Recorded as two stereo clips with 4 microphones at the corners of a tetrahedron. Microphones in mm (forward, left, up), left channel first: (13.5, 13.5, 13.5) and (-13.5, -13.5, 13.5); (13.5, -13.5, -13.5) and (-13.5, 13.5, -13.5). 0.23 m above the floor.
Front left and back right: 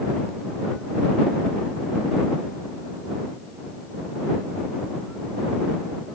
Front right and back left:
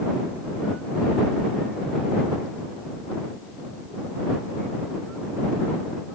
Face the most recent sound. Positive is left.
No sound to turn to.